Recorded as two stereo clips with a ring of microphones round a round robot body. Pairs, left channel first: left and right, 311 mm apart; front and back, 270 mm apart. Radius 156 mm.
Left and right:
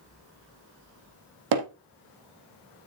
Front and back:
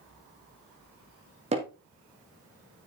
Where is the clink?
I don't hear a clink.